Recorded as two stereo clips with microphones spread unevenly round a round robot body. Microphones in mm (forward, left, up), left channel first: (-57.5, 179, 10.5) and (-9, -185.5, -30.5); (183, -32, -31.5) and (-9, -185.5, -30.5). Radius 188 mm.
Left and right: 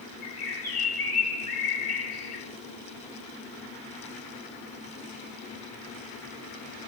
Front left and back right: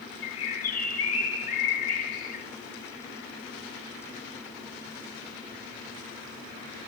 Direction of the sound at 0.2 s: 40° left.